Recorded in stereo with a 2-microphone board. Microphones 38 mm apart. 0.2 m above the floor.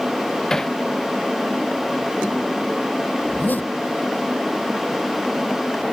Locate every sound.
0.5 s hammering: 15° left (ahead or behind)
3.2 s a zipper: 50° left (ahead or behind)